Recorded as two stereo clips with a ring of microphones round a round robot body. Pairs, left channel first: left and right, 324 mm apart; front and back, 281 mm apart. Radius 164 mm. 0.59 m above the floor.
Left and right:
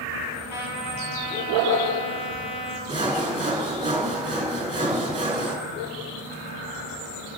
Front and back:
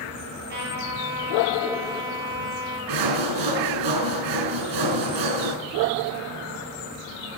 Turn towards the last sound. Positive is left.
turn(degrees=-165)